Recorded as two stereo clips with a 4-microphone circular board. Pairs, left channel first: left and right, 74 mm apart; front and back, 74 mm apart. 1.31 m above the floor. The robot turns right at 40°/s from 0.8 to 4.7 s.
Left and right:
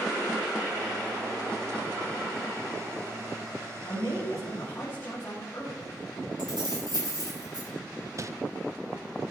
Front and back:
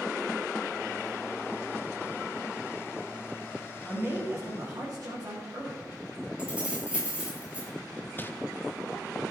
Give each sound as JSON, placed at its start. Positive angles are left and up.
{"t": 3.9, "sound": "a man speaking", "azimuth_deg": 110, "distance_m": 3.0}
{"t": 6.4, "sound": "keys jangling", "azimuth_deg": -105, "distance_m": 6.0}
{"t": 8.2, "sound": "crumpling", "azimuth_deg": -55, "distance_m": 0.5}